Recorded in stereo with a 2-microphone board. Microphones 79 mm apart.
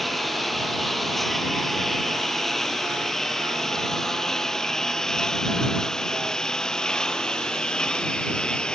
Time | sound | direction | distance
0.0 | a lawn mower | centre (ahead or behind) | ?